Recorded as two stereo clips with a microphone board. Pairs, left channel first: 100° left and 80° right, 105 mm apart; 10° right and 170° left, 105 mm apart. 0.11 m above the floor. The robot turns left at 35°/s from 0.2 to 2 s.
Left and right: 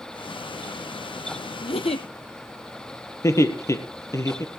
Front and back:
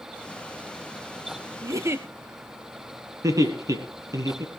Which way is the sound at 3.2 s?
140° left.